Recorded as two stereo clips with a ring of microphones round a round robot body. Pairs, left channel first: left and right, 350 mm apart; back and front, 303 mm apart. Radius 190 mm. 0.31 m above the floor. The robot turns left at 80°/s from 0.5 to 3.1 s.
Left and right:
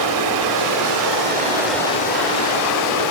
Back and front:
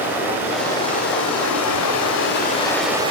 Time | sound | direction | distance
0.0 | running water | 85° right | 1.5 m